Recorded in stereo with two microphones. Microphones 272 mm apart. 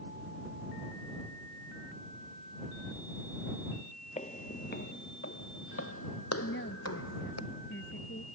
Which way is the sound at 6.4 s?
45° left (ahead or behind).